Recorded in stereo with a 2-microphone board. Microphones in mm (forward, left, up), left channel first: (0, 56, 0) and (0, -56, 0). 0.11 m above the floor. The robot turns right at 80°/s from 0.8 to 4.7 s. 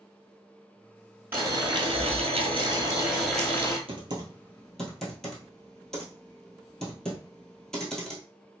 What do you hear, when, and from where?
1.3 s boiling: 160° right, 1.1 m; by 3.8 s 35° left, 1.1 m
3.9 s typing on a keyboard: 55° right (ahead or behind), 1.1 m; by 8.2 s 5° left (ahead or behind), 1.1 m